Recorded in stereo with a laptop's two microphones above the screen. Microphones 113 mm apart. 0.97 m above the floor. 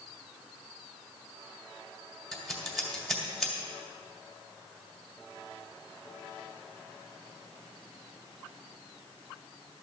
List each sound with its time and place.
2.3 s scissors: centre (ahead or behind), 2.5 m